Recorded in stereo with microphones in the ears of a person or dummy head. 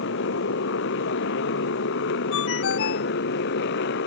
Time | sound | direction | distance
0.0 | a motorcycle | 65° left (ahead or behind) | ?
2.3 | a ringtone | 75° left (ahead or behind) | ?